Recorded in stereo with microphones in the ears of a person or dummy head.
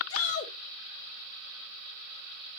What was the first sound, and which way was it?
A shout, 85° left.